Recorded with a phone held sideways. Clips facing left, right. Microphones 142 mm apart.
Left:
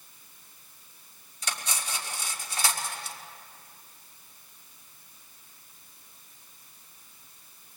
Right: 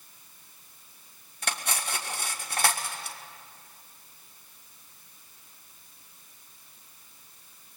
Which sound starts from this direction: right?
Cutlery clinking, at 1.4 s.